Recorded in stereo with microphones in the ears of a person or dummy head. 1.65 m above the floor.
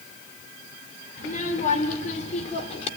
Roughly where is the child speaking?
Left.